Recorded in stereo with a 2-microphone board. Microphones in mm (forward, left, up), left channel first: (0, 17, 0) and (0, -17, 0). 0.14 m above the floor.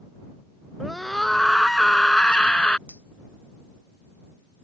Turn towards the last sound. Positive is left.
turn(degrees=60)  # may be behind; listen again after turning